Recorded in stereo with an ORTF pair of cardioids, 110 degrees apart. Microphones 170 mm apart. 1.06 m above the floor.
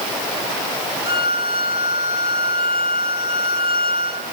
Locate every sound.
1.1 s a violin: 30° right, 3 m